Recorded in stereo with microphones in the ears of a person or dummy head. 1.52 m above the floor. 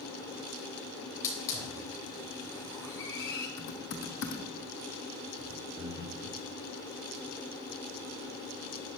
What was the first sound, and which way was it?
A hiss, 20° left (ahead or behind).